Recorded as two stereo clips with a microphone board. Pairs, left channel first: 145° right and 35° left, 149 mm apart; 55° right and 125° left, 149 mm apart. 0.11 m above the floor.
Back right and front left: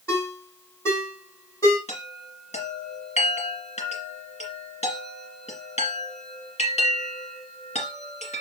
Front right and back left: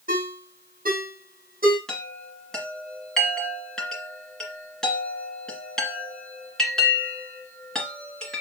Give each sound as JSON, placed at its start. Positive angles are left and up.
{"t": 0.1, "sound": "a ringtone", "azimuth_deg": 145, "distance_m": 3.0}
{"t": 1.9, "sound": "a chime", "azimuth_deg": -140, "distance_m": 2.0}